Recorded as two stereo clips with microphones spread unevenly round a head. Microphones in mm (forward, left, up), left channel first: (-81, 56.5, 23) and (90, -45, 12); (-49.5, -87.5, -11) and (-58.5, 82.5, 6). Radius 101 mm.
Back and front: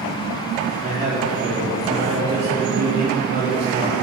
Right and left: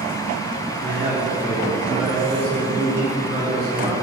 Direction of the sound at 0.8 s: 25° left.